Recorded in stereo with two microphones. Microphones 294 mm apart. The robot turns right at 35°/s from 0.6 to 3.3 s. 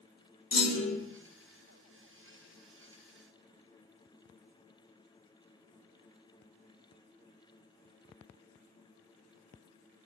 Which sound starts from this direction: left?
A clunk, at 0.5 s.